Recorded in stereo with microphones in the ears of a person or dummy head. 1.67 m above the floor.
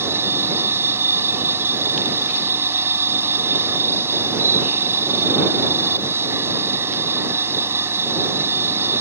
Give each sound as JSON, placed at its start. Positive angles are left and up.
{"t": 0.0, "sound": "a machine running", "side_deg": -15}